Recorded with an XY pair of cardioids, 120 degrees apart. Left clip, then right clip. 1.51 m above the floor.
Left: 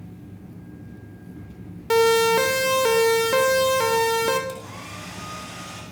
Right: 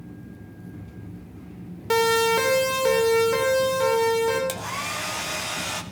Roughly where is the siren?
Ahead.